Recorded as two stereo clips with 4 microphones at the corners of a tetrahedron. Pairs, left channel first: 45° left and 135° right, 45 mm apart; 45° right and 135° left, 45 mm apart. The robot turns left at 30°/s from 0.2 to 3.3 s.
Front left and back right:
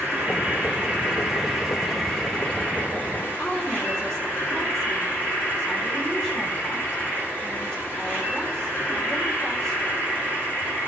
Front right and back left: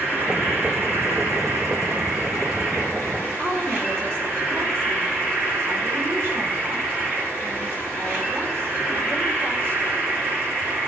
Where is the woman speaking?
125° left, 2.5 m.